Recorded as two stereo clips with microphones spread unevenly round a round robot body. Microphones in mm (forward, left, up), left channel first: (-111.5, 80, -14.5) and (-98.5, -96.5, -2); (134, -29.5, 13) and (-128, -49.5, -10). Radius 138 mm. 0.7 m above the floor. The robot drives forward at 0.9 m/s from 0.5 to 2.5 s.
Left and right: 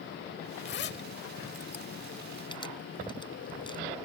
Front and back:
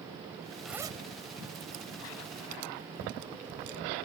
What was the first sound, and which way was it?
A zipper, 90° left.